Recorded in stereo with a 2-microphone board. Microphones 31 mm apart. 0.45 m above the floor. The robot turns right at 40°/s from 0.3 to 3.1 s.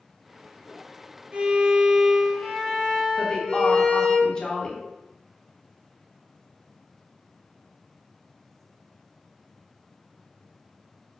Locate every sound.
1.3 s a violin: 45° right, 0.7 m; by 4.2 s 25° left, 0.7 m
3.2 s a woman speaking: 25° left (ahead or behind), 0.9 m